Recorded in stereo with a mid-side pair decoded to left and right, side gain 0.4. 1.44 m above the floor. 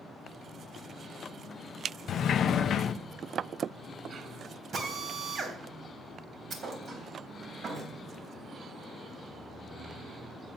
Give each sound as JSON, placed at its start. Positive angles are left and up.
{"t": 2.1, "sound": "a sliding door", "azimuth_deg": 65, "distance_m": 0.6}
{"t": 4.7, "sound": "a drill", "azimuth_deg": -60, "distance_m": 3.0}
{"t": 6.5, "sound": "a thud", "azimuth_deg": -55, "distance_m": 3.5}